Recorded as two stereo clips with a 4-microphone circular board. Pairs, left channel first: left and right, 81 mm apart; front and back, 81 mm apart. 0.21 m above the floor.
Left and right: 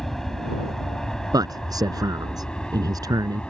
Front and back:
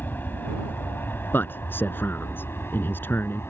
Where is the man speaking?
60° right.